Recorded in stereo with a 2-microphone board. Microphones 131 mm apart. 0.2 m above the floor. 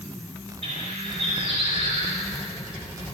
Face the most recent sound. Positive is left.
turn(degrees=-65)  # may be behind; listen again after turning